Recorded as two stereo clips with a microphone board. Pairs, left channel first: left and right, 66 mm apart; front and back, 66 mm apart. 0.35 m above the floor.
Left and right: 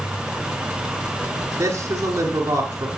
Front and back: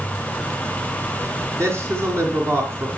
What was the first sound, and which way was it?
A man speaking, 135° right.